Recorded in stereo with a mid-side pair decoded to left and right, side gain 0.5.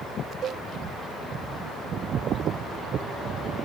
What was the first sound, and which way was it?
A cowbell, 45° right.